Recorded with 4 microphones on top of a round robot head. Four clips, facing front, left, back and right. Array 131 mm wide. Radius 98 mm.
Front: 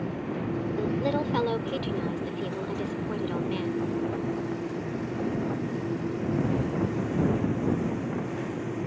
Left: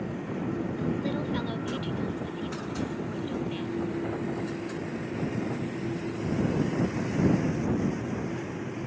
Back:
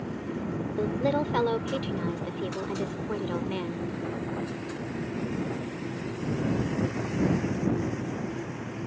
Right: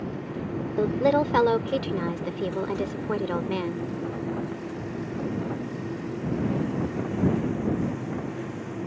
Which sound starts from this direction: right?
A woman speaking, at 0.8 s.